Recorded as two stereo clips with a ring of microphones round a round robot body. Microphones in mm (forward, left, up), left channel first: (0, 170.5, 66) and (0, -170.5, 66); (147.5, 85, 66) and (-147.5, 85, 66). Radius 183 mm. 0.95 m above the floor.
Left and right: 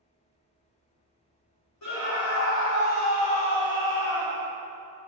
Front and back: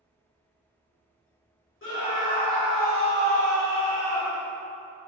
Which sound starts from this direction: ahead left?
A scream, at 1.8 s.